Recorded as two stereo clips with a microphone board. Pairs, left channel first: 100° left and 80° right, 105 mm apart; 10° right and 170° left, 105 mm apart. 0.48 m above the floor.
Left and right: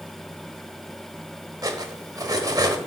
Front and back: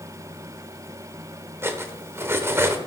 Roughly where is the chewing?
No chewing in this recording.